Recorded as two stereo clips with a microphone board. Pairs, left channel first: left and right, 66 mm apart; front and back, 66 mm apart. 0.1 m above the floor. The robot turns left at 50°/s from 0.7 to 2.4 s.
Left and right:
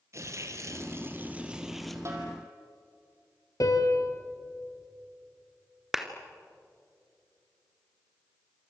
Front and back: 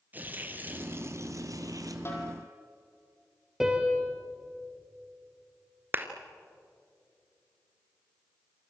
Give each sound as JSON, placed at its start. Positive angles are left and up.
{"t": 0.1, "sound": "tearing paper", "azimuth_deg": -120, "distance_m": 2.5}
{"t": 2.0, "sound": "a snare drum", "azimuth_deg": -50, "distance_m": 4.0}
{"t": 3.6, "sound": "a piano", "azimuth_deg": 100, "distance_m": 2.5}
{"t": 5.9, "sound": "a clap", "azimuth_deg": -165, "distance_m": 1.6}